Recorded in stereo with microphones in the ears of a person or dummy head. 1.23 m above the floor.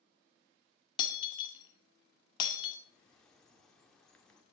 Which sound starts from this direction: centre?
A bird, at 2.9 s.